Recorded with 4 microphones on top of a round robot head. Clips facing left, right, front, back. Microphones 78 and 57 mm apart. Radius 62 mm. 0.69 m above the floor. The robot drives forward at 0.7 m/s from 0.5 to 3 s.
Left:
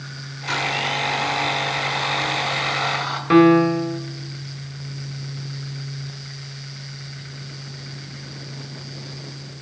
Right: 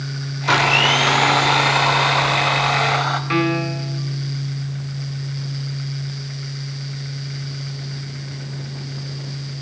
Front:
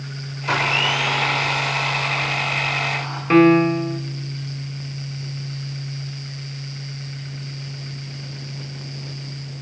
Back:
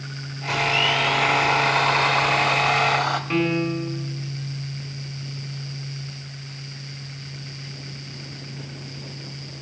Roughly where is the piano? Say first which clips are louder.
Left 12 dB, front 15 dB; ahead left.